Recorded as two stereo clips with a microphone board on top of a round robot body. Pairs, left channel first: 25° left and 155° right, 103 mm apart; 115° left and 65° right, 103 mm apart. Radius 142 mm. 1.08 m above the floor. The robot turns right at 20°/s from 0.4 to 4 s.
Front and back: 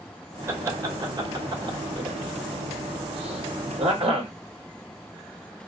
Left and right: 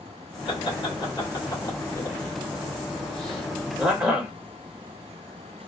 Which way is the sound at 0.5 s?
140° left.